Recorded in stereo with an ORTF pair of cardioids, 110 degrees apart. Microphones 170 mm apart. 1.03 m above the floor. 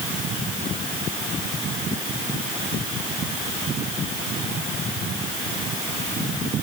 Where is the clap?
I don't hear a clap.